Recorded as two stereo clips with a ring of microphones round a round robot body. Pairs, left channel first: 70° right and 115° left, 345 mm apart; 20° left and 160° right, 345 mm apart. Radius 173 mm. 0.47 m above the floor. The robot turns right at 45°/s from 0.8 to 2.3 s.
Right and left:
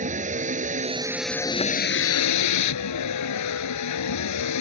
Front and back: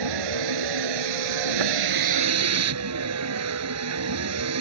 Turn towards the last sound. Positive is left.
turn(degrees=-110)